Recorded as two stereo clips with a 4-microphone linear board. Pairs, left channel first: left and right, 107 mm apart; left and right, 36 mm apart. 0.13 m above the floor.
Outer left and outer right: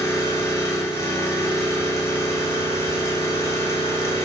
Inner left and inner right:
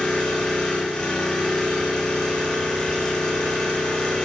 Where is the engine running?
25° left (ahead or behind), 0.7 m.